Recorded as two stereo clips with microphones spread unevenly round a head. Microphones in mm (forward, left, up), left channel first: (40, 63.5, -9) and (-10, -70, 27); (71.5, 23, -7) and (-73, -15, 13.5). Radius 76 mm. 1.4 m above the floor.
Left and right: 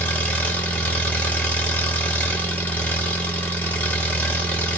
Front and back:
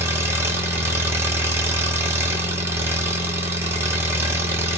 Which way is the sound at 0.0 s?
175° left.